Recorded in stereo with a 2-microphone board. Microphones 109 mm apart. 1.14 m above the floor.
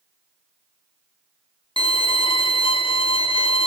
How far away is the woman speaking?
I don't hear a woman speaking.